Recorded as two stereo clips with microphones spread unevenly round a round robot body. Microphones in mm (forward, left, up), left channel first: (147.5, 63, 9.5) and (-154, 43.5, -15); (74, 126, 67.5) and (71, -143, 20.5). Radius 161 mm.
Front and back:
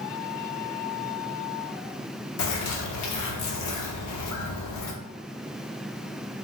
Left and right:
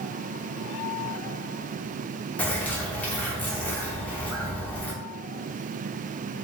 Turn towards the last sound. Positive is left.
turn(degrees=15)